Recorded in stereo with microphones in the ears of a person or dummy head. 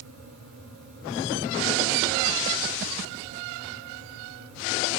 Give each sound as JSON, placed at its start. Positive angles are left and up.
{"t": 0.0, "sound": "a fan", "side_deg": -80, "distance_m": 3.0}